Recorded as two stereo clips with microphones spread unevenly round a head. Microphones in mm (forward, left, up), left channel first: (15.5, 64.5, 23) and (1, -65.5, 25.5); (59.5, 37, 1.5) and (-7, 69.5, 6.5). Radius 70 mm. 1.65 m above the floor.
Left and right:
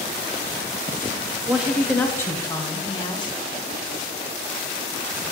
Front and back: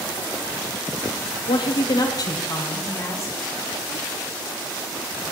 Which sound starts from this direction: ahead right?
A woman speaking, at 1.5 s.